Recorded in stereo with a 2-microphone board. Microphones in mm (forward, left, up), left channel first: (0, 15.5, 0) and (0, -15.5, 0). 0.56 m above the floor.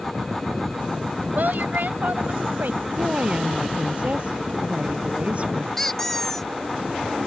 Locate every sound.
1.4 s a woman speaking: 70° right (ahead or behind); by 2.9 s 75° right (ahead or behind)
3.0 s a woman speaking: 40° right (ahead or behind)
5.8 s a squeak: 10° left (ahead or behind)